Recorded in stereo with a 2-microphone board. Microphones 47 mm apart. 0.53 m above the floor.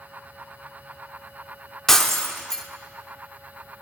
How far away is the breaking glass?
About 0.7 m.